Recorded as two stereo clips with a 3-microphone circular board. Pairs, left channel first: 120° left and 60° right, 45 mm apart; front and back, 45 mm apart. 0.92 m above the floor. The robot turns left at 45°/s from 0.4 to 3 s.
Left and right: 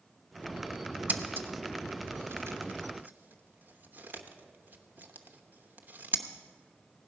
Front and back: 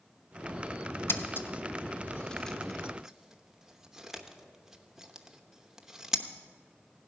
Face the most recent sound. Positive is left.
turn(degrees=-100)